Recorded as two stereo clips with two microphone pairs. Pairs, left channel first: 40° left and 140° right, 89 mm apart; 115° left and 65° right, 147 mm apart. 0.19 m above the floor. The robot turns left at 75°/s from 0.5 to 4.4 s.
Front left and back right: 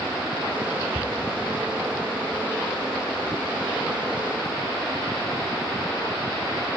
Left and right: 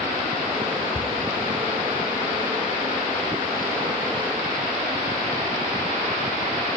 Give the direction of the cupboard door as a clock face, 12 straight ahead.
6 o'clock.